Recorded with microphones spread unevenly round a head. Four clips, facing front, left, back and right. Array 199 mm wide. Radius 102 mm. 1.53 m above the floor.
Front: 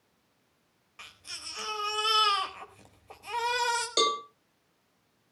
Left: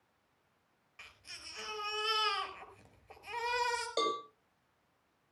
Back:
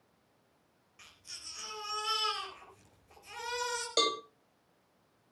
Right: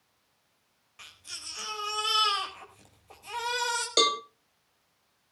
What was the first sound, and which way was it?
A baby crying, 5° right.